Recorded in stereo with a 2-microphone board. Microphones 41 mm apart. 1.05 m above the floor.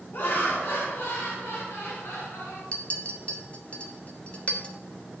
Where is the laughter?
60° left (ahead or behind), 3 m; by 2.6 s 85° left, 4.5 m.